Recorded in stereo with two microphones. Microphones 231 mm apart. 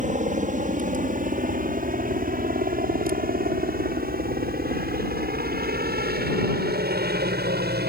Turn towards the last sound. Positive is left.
turn(degrees=-50)  # may be behind; listen again after turning